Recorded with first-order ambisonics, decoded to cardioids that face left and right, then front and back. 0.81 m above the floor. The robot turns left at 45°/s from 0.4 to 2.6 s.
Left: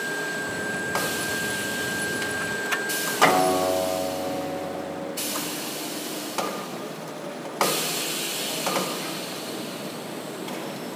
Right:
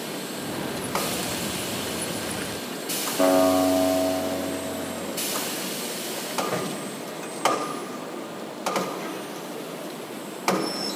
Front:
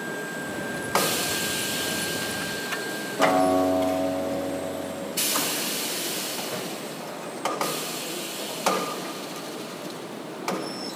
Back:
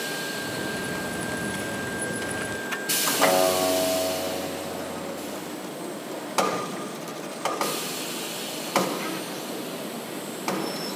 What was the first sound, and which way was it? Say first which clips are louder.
A guitar: even, front 1 dB; 70° right.